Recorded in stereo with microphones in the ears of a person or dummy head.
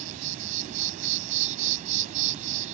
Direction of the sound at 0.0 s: 40° right (ahead or behind).